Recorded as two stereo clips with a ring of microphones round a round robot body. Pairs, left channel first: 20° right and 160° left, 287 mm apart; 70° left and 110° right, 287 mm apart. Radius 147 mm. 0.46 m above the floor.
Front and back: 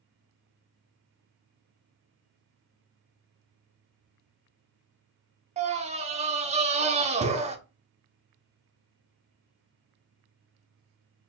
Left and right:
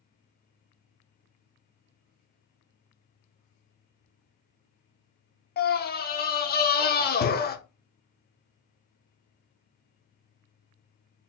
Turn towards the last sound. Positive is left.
turn(degrees=105)